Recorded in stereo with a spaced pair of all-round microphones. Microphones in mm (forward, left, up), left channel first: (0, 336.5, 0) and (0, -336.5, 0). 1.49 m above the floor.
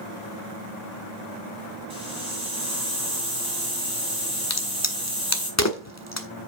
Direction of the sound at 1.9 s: 10° right (ahead or behind).